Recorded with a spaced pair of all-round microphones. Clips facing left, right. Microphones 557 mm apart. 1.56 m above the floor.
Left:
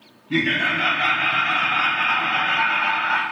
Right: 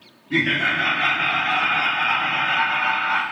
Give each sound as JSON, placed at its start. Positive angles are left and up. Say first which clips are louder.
{"t": 0.3, "sound": "laughter", "louder": "left 1 dB", "side_deg": 30, "distance_m": 1.6}